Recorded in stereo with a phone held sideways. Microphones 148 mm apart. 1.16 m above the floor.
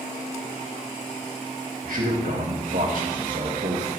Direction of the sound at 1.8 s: 70° right (ahead or behind).